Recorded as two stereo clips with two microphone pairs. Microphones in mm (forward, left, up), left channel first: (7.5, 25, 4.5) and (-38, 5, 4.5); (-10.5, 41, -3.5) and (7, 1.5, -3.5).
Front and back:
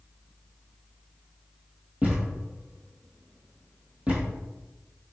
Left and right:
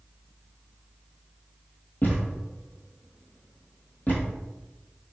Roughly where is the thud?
Behind left.